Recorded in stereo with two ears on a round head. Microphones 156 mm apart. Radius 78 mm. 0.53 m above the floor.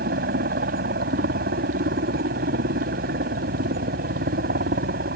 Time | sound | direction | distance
0.0 | a helicopter | 60° right (ahead or behind) | ?